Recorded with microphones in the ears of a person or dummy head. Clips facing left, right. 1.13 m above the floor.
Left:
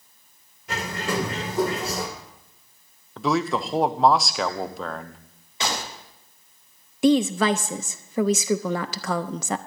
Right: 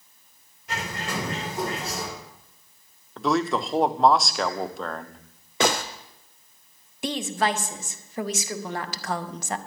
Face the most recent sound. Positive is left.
turn(degrees=75)  # may be behind; listen again after turning